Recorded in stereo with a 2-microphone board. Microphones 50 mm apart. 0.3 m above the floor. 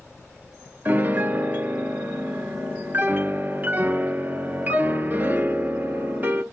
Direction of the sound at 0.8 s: 40° right (ahead or behind).